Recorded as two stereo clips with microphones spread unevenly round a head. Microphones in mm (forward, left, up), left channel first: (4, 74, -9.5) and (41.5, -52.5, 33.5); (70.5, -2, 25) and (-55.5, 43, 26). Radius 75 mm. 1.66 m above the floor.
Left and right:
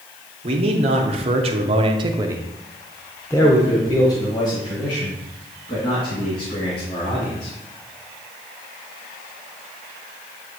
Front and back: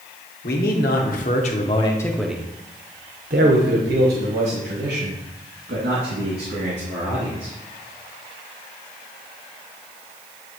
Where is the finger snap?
No finger snap in this recording.